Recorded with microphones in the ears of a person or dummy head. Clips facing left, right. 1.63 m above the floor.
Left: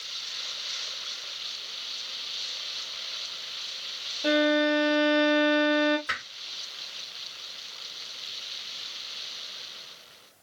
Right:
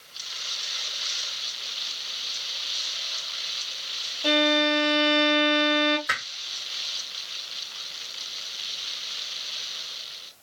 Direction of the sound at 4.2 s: 25° left (ahead or behind).